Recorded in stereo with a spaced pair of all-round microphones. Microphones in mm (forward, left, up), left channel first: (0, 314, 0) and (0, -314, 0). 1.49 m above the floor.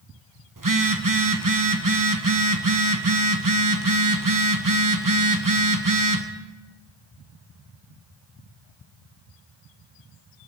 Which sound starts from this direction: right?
A phone buzzing, at 0.6 s.